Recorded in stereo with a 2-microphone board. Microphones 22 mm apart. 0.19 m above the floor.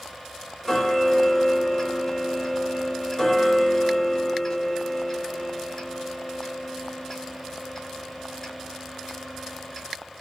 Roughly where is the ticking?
Left.